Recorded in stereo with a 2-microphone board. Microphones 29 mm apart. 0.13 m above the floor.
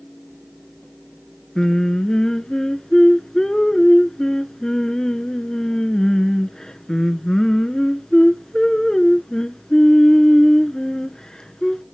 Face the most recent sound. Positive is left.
turn(degrees=25)  # may be behind; listen again after turning